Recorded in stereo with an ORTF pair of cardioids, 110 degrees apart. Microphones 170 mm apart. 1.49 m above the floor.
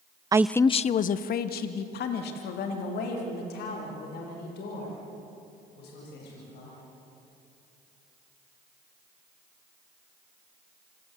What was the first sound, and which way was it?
A man speaking, 20° right.